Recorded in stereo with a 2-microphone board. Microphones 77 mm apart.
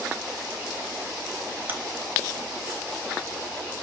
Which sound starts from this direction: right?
Chewing, at 1.7 s.